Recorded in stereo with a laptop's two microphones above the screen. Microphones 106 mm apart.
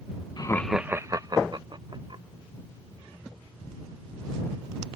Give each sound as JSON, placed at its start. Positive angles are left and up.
{"t": 0.4, "sound": "laughter", "side_deg": 40}